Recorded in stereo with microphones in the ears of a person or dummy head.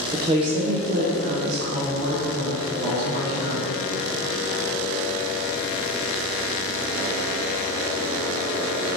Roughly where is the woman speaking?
Centre.